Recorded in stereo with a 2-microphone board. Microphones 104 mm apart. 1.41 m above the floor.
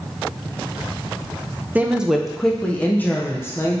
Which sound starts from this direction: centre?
A woman speaking, at 1.8 s.